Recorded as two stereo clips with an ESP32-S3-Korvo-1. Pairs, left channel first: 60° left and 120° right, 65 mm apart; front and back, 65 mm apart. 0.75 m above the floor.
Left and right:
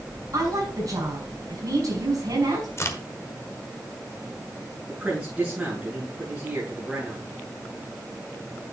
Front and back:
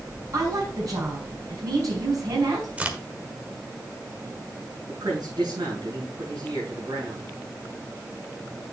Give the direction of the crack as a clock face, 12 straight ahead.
8 o'clock.